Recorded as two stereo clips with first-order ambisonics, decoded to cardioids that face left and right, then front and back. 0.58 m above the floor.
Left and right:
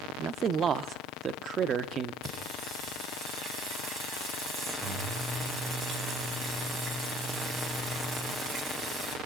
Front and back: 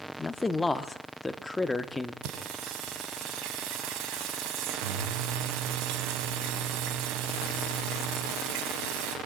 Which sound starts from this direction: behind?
Singing, at 2.2 s.